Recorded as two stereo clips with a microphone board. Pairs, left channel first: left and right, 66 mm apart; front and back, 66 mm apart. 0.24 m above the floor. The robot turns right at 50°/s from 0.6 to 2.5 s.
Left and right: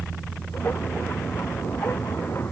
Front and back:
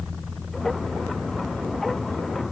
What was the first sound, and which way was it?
Only background noise.